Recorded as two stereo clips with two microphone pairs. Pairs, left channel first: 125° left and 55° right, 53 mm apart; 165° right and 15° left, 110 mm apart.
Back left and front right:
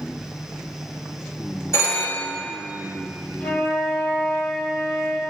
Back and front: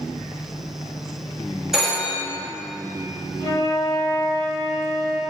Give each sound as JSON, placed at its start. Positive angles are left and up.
{"t": 1.7, "sound": "a phone ringing", "azimuth_deg": 105, "distance_m": 1.6}
{"t": 3.4, "sound": "a flute", "azimuth_deg": 135, "distance_m": 2.5}